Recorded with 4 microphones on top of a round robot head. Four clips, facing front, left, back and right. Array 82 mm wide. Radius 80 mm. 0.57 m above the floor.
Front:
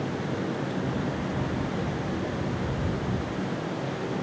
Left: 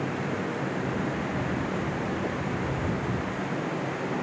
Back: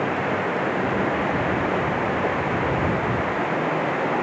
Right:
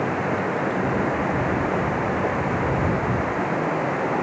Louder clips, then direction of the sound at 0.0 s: Right 7 dB, back 7 dB; 140° right.